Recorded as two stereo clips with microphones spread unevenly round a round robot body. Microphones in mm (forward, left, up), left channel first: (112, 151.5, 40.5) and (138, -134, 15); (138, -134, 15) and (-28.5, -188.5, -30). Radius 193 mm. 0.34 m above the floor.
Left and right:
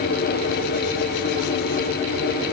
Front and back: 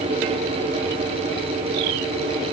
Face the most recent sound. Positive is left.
No sound to turn to.